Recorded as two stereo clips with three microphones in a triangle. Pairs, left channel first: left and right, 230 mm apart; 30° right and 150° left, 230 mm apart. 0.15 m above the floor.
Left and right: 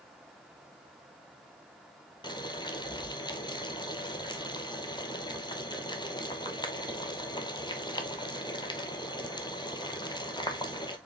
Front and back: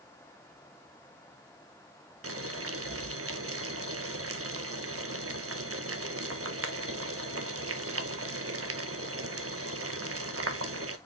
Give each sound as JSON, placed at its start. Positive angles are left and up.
{"t": 2.2, "sound": "boiling", "azimuth_deg": 160, "distance_m": 0.6}